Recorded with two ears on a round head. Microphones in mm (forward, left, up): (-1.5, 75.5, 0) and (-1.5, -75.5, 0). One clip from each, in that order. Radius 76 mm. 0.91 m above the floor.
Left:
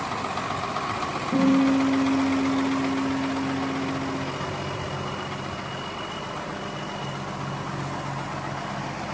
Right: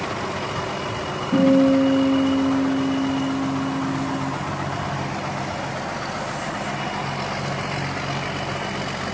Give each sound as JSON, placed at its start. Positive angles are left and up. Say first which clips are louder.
{"t": 1.3, "sound": "a guitar", "louder": "right 5 dB", "side_deg": 45, "distance_m": 9.5}